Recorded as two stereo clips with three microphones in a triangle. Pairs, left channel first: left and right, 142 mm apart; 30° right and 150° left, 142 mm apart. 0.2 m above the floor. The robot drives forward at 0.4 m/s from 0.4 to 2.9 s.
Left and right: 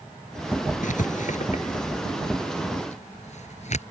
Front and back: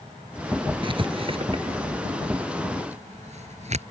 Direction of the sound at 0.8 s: 100° left.